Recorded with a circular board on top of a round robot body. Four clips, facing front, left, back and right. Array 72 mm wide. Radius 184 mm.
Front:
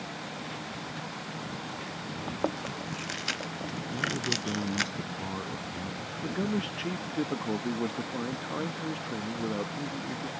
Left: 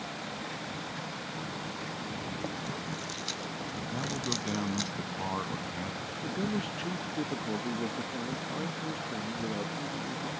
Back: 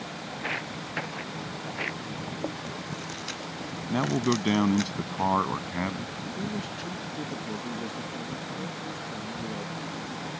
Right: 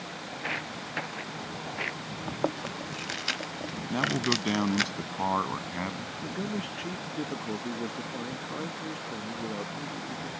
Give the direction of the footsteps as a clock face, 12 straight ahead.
5 o'clock.